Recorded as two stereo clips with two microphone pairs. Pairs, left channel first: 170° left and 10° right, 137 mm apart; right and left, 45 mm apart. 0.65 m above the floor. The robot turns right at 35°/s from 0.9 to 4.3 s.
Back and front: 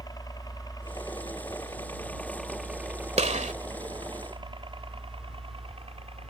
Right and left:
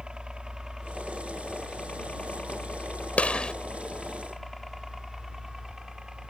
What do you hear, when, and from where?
0.0 s a helicopter: 140° left; by 6.3 s 10° left
3.2 s a gunshot: 40° right; by 3.5 s 25° right